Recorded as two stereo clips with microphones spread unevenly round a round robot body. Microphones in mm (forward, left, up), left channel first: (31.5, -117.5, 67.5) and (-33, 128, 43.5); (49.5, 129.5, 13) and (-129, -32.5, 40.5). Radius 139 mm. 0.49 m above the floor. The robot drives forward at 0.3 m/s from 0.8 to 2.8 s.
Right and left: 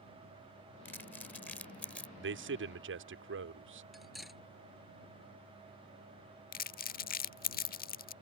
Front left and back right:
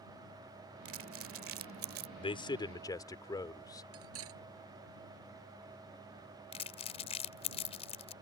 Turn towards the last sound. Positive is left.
turn(degrees=-20)